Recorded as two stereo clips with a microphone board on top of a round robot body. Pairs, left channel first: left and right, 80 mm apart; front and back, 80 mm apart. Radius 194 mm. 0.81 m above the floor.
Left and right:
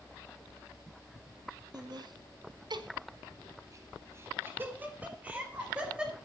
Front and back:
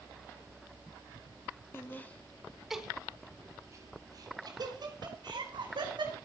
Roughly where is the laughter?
Ahead right.